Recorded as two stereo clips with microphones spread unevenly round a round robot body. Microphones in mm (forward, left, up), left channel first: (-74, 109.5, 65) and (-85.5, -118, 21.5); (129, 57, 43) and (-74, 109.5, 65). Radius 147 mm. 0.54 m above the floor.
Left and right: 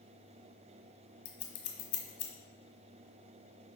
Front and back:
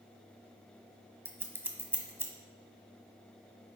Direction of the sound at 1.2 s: 85° left.